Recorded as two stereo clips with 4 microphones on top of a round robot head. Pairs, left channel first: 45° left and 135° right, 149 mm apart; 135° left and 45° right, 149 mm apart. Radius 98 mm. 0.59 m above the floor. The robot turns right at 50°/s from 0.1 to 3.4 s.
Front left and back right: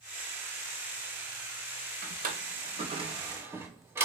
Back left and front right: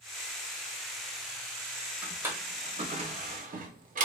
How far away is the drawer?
About 0.7 m.